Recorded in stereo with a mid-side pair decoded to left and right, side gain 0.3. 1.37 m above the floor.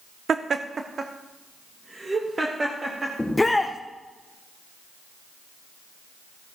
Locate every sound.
0.3 s laughter: 60° right, 0.6 m; by 3.1 s 35° right, 2 m
3.2 s a shout: 20° left, 0.9 m